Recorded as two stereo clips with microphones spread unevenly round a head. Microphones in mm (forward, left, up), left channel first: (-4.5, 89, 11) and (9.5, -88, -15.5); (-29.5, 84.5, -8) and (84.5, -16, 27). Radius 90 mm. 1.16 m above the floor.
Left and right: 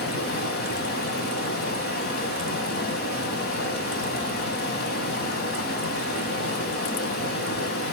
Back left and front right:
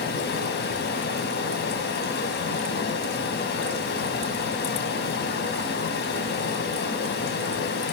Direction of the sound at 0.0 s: 125° left.